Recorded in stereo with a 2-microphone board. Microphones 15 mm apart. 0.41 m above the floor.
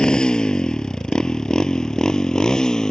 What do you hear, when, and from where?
0.0 s a motorcycle: 65° left (ahead or behind); by 2.9 s 45° left (ahead or behind)